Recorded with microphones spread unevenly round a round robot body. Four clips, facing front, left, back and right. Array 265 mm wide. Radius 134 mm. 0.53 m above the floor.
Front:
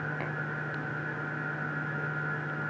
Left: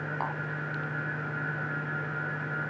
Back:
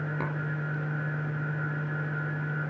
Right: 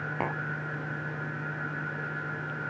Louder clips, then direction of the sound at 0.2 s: Right 2 dB, back 2 dB; 125° right.